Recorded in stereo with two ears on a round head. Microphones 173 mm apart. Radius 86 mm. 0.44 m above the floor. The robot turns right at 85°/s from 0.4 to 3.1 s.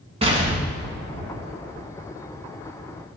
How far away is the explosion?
About 1.5 m.